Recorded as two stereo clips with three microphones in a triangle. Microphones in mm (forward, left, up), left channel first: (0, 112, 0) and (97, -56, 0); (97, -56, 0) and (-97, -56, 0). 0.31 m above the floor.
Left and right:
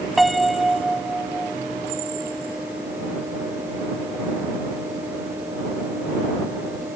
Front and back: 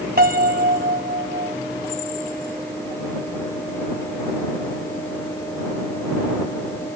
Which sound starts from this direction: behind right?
A piano, at 0.2 s.